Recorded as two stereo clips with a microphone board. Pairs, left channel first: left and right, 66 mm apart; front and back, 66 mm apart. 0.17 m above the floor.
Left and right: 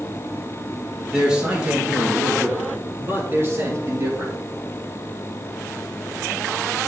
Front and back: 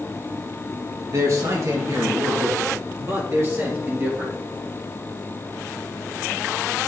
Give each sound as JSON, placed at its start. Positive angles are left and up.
{"t": 1.1, "sound": "a man speaking", "azimuth_deg": -165, "distance_m": 4.0}